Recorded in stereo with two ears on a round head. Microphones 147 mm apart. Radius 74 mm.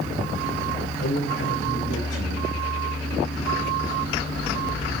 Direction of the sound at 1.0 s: 80° left.